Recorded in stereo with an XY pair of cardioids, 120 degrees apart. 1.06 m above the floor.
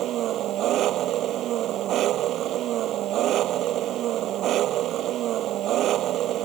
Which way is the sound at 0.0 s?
65° right.